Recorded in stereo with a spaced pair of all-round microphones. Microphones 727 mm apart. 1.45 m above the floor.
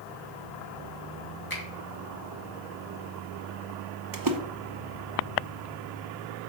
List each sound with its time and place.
1.5 s a finger snap: 30° left (ahead or behind), 2 m
4.1 s a splash: 30° right (ahead or behind), 0.7 m